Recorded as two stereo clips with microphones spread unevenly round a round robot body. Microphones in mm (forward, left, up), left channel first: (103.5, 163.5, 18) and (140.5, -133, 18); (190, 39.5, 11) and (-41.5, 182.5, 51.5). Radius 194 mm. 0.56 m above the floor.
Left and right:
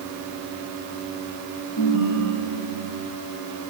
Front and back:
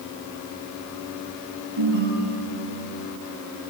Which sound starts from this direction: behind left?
A ringtone, at 1.8 s.